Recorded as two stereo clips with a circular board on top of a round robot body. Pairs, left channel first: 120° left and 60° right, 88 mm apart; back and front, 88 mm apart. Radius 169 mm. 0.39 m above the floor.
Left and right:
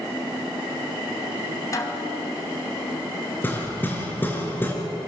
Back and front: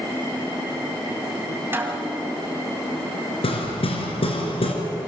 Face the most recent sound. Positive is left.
turn(degrees=-170)